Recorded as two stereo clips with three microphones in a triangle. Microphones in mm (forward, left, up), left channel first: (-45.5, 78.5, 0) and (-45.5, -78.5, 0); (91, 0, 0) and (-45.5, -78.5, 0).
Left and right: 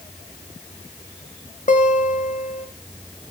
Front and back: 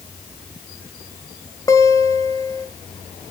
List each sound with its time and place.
1.7 s a guitar: 90° left, 1.3 m